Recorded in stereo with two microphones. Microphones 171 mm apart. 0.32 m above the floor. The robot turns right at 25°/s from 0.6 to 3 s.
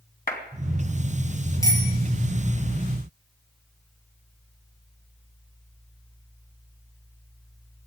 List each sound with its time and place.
0.3 s a clap: 60° left (ahead or behind), 2.5 m
1.6 s a bicycle bell: 15° left (ahead or behind), 5.5 m; by 1.9 s 25° left (ahead or behind), 5.5 m